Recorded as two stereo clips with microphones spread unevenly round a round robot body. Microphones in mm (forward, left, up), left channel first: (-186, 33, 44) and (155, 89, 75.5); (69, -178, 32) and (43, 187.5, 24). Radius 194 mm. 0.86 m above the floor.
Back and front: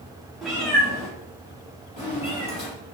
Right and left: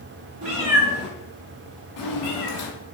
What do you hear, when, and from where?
0.4 s a cat meowing: 80° left, 0.7 m; by 2.7 s 95° right, 1.4 m